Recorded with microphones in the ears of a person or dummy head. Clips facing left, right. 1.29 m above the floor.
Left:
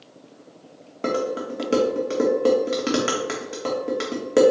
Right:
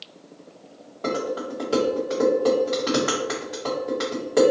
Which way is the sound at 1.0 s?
40° left (ahead or behind).